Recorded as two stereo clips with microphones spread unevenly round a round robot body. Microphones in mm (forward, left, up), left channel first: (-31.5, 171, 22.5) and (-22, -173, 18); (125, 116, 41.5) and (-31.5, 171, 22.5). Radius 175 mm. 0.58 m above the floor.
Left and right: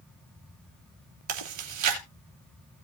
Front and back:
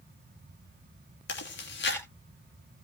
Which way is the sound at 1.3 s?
45° right.